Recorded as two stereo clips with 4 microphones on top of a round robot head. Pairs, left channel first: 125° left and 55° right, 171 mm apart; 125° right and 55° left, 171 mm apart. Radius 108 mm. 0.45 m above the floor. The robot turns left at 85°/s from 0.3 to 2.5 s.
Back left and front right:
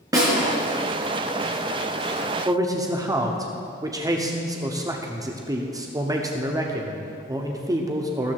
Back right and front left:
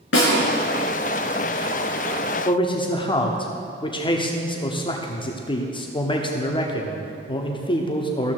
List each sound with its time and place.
0.1 s a snare drum: 125° right, 3.5 m
2.5 s a man speaking: 100° right, 1.1 m; by 8.4 s 105° right, 1.1 m